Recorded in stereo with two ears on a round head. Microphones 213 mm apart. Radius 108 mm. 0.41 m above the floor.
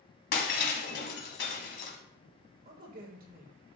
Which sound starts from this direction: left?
Breaking glass, at 0.3 s.